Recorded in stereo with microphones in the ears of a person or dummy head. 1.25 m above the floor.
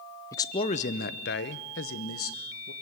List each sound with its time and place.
0.3 s a man speaking: 20° left (ahead or behind), 0.8 m; by 2.7 s 70° left (ahead or behind), 1.7 m